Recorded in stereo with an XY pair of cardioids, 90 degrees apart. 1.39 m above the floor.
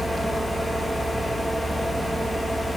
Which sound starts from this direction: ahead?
A fan, at 0.0 s.